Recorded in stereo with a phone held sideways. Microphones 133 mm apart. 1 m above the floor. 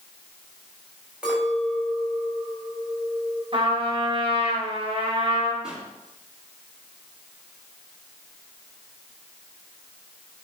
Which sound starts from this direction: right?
A trumpet, at 3.5 s.